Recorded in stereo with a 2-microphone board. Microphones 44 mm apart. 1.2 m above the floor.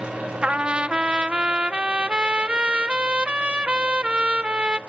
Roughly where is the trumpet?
Right.